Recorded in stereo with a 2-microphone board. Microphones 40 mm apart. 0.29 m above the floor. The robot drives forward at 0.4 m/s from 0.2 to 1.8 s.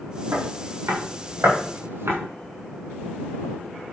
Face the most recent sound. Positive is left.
turn(degrees=-80)